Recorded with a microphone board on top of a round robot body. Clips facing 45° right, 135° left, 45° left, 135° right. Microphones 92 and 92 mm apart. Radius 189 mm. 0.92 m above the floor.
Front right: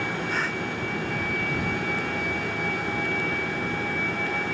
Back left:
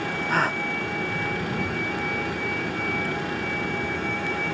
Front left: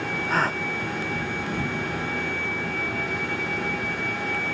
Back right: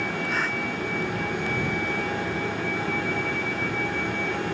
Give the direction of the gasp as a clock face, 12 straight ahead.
9 o'clock.